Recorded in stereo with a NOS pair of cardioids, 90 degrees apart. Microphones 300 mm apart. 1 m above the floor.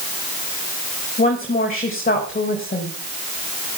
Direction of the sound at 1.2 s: 25° left.